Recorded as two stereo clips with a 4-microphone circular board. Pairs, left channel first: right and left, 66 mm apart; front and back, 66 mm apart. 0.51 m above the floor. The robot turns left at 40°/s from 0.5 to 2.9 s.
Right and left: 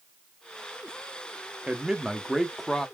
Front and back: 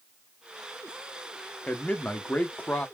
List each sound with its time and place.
1.7 s a man speaking: 40° left, 0.6 m; by 2.9 s 10° right, 0.6 m